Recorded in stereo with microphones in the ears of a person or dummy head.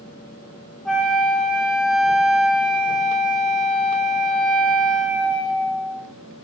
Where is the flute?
Centre (ahead or behind), 1.3 m.